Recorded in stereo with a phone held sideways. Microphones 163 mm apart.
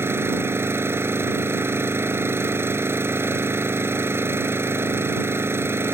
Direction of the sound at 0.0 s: 15° right (ahead or behind).